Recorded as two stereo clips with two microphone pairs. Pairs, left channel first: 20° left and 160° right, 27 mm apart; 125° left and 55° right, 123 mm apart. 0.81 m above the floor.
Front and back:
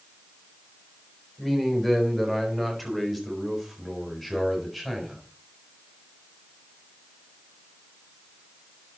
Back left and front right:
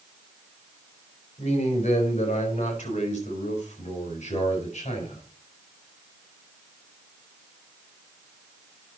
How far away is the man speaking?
About 4.5 m.